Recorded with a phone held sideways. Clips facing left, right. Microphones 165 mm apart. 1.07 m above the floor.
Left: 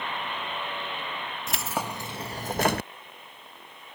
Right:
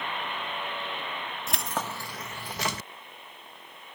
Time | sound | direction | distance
1.5 | keys jangling | centre (ahead or behind) | ?